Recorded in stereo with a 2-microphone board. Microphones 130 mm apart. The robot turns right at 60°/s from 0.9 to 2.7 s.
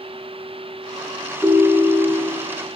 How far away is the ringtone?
About 0.9 m.